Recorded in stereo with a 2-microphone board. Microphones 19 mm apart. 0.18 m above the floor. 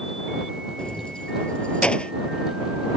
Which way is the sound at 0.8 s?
50° left (ahead or behind).